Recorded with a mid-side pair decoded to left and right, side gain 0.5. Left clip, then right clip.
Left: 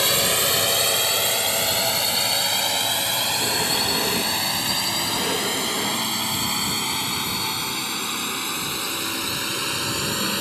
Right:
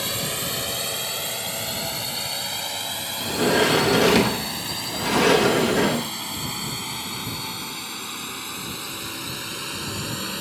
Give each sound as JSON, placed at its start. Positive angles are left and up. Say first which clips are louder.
{"t": 0.0, "sound": "a drone", "louder": "left 7 dB", "azimuth_deg": 45}
{"t": 3.2, "sound": "a sliding door", "louder": "right 2 dB", "azimuth_deg": -60}